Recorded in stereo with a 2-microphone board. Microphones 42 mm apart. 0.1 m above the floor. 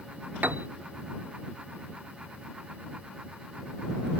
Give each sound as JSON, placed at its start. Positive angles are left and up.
{"t": 0.4, "sound": "a piano", "side_deg": -45}